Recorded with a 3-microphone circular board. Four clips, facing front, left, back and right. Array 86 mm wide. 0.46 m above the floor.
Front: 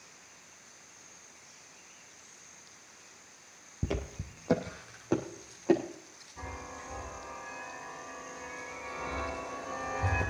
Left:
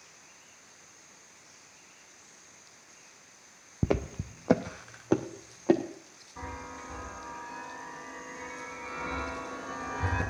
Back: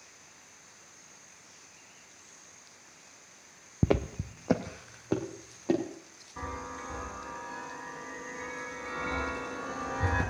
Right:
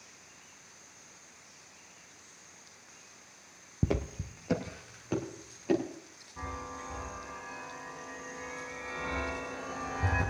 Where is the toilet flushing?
No toilet flushing in this recording.